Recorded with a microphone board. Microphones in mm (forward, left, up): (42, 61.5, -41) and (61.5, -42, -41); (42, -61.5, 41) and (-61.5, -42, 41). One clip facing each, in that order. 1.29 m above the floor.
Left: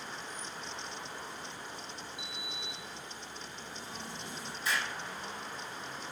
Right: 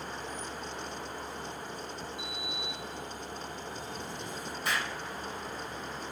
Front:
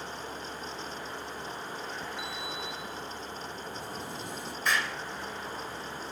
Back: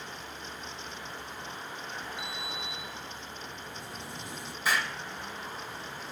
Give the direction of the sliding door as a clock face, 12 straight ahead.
1 o'clock.